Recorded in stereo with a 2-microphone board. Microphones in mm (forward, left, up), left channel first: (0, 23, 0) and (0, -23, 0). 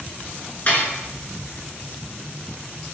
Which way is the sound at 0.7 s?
40° left (ahead or behind).